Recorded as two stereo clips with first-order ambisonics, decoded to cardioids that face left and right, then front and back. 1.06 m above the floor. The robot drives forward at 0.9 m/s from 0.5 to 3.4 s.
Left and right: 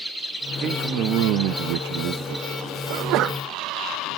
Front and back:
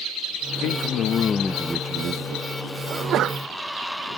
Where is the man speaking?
35° right; by 3.3 s 160° right.